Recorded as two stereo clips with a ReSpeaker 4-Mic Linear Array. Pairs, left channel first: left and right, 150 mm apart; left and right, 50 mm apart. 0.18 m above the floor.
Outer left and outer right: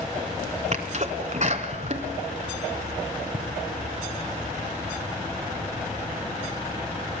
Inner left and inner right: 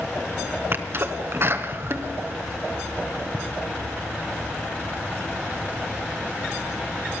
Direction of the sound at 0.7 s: 50° right (ahead or behind).